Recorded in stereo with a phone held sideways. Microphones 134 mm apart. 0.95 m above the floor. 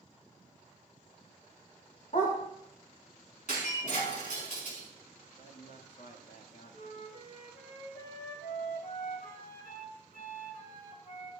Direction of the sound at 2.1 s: 65° left (ahead or behind).